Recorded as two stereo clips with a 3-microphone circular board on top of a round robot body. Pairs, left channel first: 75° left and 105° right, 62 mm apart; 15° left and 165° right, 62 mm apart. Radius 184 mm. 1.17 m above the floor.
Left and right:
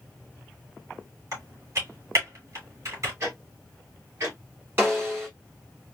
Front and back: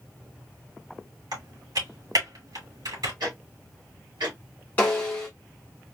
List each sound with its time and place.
1.3 s typing on a keyboard: 150° right, 2 m
3.2 s ticking: 155° right, 0.9 m
4.8 s a snare drum: 50° right, 1.0 m